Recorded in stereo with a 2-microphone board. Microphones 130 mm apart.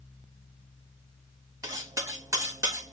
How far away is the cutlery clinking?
About 1.1 m.